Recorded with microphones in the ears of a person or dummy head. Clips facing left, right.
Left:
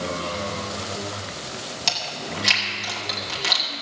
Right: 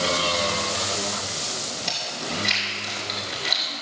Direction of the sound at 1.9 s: 80° left.